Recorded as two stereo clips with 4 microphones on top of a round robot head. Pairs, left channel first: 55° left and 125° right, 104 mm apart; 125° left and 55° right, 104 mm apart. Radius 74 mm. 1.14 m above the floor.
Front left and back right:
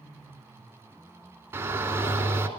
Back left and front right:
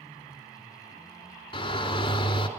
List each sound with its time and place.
1.5 s a shout: 170° left, 3 m